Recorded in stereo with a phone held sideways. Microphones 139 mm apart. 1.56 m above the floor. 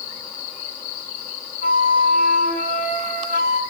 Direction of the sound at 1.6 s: 35° right (ahead or behind).